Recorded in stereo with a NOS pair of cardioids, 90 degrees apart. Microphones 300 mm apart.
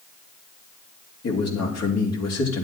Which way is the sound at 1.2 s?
55° left.